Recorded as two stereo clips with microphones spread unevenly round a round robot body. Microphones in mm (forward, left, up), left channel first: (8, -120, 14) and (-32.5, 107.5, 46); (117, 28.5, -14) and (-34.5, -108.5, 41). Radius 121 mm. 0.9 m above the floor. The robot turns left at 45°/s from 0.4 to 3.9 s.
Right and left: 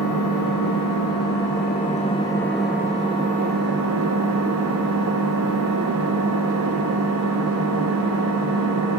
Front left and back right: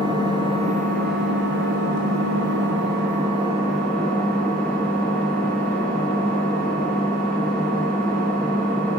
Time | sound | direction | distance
0.0 | an engine running | 70° right | 4.5 m